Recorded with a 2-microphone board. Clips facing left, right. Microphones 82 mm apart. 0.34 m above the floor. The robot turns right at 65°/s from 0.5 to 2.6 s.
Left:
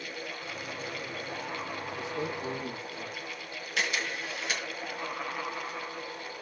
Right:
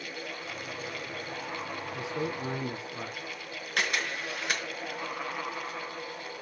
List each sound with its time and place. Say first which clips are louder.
1.9 s a man speaking: right 2 dB; 105° right, 4.5 m; by 3.3 s 65° right, 4.5 m
3.8 s a camera shutter: right 1 dB; 55° right (ahead or behind), 3.5 m